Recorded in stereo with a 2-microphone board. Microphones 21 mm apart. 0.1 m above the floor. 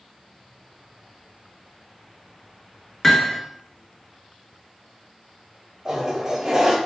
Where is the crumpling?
I don't hear crumpling.